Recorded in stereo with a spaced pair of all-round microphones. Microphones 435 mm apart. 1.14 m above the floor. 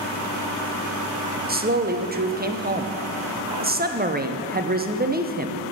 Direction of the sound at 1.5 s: 20° right (ahead or behind).